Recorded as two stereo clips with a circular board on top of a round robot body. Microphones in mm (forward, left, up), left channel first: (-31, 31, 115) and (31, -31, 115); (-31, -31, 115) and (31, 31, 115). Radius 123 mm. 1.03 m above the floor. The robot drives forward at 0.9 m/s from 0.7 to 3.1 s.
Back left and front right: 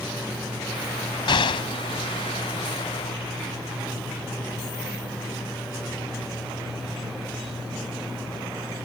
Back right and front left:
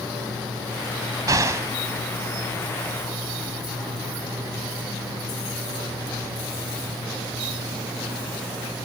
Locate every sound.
1.3 s an explosion: 100° left; by 1.7 s 110° left